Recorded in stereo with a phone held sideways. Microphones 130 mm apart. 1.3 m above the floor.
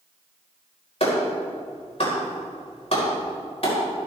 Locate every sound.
1.0 s a clap: 55° left (ahead or behind), 4.5 m